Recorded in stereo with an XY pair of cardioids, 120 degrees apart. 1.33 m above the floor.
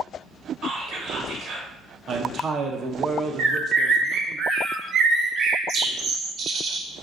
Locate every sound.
0.6 s whispering: 65° right, 1.6 m
2.1 s a man speaking: 45° right, 0.6 m
3.4 s a bird: 55° right, 0.6 m